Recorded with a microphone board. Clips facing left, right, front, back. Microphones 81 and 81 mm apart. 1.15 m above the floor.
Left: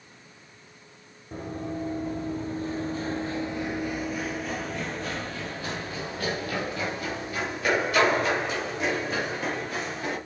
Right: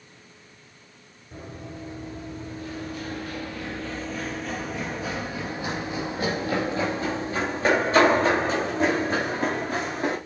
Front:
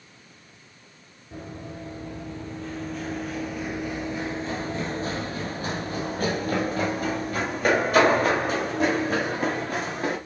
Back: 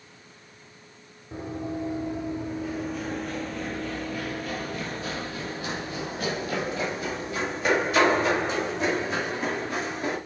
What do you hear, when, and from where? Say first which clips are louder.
1.3 s running footsteps: left 6 dB, back 6 dB; 115° left, 1.9 m; by 10.2 s 40° right, 4 m